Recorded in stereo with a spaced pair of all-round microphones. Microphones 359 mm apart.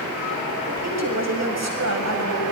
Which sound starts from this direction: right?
A woman speaking, at 0.7 s.